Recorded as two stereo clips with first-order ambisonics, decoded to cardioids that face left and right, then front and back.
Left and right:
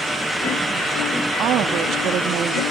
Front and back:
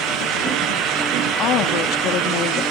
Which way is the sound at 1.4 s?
40° right.